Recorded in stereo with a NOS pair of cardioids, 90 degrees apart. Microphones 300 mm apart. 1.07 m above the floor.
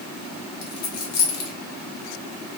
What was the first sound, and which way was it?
A dropped coin, 65° left.